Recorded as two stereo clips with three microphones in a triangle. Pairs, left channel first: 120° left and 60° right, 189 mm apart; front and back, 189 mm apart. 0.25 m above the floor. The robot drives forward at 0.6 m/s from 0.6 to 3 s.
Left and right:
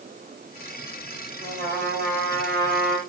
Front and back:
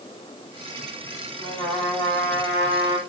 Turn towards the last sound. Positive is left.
turn(degrees=-100)